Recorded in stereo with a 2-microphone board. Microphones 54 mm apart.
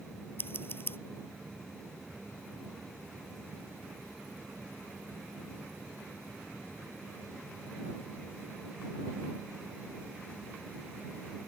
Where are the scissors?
45° left (ahead or behind).